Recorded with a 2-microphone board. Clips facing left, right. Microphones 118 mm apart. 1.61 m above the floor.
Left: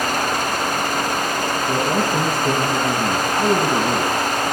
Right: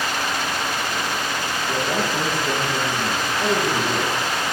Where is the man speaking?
30° left (ahead or behind), 1.6 m.